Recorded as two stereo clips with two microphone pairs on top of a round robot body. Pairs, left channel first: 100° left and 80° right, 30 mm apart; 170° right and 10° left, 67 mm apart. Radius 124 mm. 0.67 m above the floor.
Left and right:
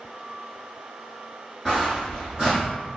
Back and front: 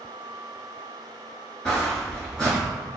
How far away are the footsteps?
About 0.6 m.